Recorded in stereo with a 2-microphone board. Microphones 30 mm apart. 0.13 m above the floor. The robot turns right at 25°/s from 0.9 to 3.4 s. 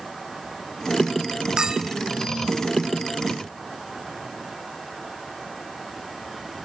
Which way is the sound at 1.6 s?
20° right (ahead or behind).